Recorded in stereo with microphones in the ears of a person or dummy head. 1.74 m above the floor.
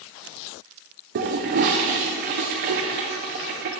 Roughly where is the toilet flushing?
Right.